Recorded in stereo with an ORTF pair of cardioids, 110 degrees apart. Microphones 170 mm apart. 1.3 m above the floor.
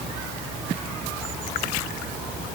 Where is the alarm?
No alarm in this recording.